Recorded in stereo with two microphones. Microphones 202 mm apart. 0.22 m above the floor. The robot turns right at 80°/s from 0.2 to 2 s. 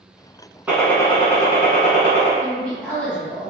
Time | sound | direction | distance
0.7 | a gunshot | 10° right | 1.1 m
2.4 | a woman speaking | 5° left (ahead or behind) | 1.6 m